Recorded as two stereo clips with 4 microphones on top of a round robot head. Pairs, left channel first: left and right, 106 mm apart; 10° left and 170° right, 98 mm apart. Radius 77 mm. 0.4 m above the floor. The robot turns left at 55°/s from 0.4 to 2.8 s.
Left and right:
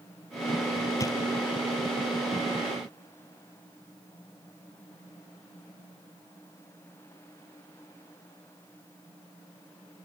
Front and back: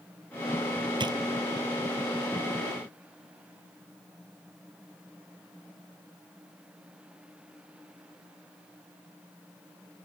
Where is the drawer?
155° left; by 1.2 s 145° left.